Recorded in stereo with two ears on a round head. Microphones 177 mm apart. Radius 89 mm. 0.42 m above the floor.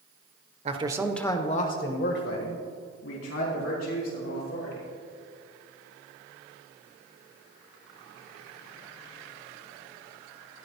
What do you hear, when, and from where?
0.7 s a man speaking: 35° right (ahead or behind), 1.3 m; by 4.9 s 80° left, 6 m